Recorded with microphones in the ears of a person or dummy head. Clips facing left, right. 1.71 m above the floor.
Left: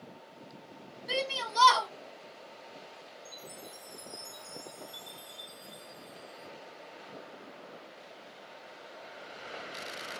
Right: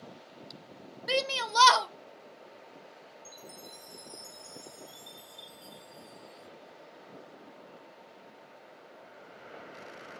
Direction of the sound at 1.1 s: 75° right (ahead or behind).